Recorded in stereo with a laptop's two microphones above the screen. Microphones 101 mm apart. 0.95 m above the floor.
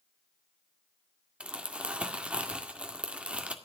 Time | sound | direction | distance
1.4 | crumpling | 10° right (ahead or behind) | 1.8 m